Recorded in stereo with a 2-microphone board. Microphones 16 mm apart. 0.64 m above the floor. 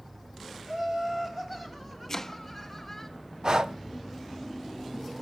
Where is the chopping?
20° left (ahead or behind), 0.6 m.